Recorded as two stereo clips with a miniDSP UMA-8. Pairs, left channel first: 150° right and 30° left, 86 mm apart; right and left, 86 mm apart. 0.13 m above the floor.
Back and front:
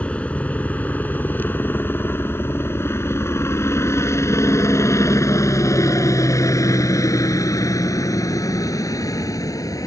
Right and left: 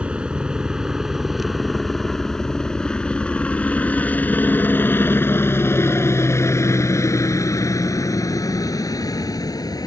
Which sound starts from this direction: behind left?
A helicopter, at 0.0 s.